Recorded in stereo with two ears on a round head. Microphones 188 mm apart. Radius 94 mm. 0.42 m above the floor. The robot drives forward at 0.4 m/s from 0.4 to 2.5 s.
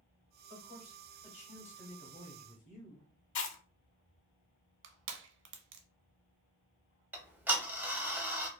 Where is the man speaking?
30° left (ahead or behind), 2 m; by 3.1 s 40° left (ahead or behind), 1.5 m.